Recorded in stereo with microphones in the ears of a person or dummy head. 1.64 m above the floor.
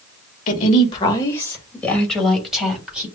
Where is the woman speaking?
40° left (ahead or behind), 1.5 m; by 3.0 s 5° right (ahead or behind), 3 m.